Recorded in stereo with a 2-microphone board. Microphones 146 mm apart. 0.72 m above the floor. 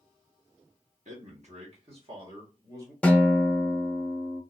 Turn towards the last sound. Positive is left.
turn(degrees=10)  # may be behind; listen again after turning